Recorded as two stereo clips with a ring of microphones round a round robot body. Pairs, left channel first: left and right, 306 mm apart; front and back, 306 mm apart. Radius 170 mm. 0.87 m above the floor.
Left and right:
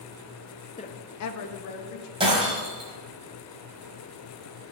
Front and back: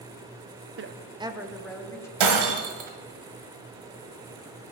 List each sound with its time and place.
0.8 s a woman speaking: 155° left, 0.8 m; by 2.1 s 80° left, 1.9 m
2.2 s breaking glass: 165° right, 1.6 m